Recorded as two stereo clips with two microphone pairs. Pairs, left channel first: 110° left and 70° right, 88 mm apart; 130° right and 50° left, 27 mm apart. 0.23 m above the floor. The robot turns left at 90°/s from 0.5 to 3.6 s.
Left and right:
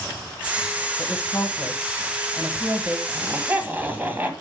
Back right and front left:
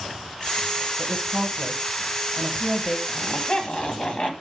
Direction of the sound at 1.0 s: 145° left.